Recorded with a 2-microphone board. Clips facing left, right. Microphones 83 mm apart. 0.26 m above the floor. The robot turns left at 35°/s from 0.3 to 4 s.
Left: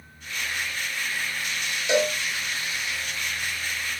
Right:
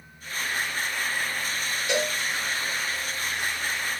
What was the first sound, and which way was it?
A cowbell, 20° left (ahead or behind).